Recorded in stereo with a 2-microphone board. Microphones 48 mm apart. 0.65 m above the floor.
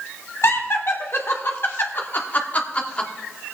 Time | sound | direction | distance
0.4 | laughter | 65° left (ahead or behind) | 2 m